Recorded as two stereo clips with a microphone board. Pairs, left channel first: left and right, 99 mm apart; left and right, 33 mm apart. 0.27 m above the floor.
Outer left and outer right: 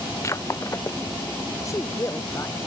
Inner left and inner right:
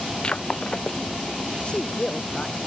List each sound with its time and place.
0.2 s breaking glass: 30° left (ahead or behind)
1.6 s a woman speaking: 35° left (ahead or behind)